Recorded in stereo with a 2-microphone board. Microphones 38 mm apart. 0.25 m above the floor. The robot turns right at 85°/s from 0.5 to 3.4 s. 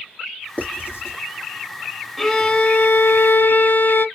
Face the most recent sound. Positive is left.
turn(degrees=100)